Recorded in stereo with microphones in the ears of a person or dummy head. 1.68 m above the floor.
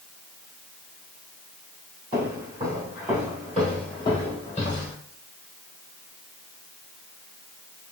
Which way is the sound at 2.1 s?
15° right (ahead or behind).